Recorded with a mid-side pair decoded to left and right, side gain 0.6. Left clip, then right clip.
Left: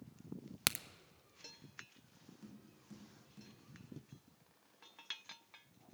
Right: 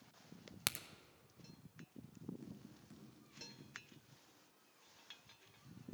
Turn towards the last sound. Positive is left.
turn(degrees=0)